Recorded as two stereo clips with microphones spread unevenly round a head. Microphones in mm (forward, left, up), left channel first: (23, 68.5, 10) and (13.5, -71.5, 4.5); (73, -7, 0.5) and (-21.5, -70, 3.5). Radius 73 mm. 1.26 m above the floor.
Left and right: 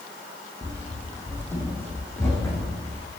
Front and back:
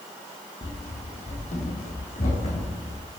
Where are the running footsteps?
10° left, 2.5 m; by 3.1 s 20° left, 5.5 m.